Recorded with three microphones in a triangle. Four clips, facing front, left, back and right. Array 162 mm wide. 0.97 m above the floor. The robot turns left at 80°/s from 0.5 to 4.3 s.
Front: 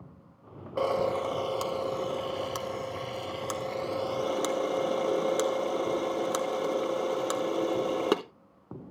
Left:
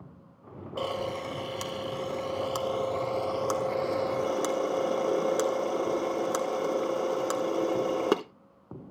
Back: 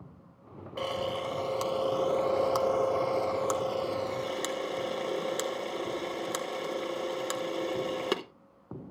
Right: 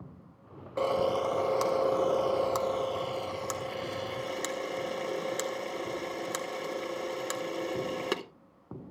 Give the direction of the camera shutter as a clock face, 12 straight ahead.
1 o'clock.